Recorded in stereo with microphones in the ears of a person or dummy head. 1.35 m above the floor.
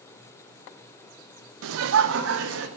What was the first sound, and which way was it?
Laughter, 75° right (ahead or behind).